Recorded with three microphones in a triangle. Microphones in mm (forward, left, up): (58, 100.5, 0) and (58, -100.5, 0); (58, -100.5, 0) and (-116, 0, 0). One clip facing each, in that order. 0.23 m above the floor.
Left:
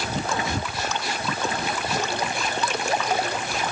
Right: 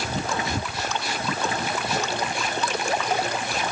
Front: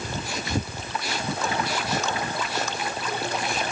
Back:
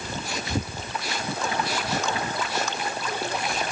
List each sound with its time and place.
Only background noise.